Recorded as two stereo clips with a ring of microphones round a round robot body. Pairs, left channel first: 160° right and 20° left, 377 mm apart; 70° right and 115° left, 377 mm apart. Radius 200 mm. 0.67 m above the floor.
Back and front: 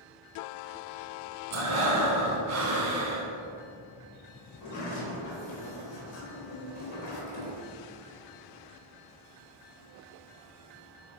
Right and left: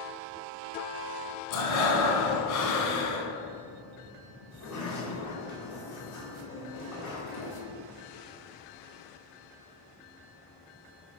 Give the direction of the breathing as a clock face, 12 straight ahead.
1 o'clock.